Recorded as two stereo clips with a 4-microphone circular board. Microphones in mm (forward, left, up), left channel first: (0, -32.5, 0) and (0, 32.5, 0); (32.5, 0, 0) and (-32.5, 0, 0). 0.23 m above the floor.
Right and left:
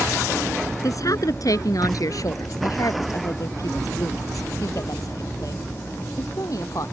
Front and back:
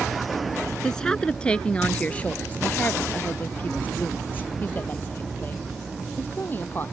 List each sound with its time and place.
0.8 s a woman speaking: 80° right; by 6.8 s 55° right